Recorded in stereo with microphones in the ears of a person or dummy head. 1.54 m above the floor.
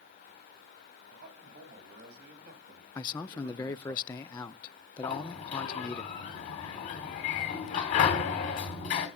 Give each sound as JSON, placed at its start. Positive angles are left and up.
{"t": 1.1, "sound": "a man speaking", "side_deg": -45, "distance_m": 4.0}
{"t": 3.0, "sound": "a man speaking", "side_deg": 25, "distance_m": 0.5}
{"t": 5.0, "sound": "a sliding door", "side_deg": 40, "distance_m": 2.5}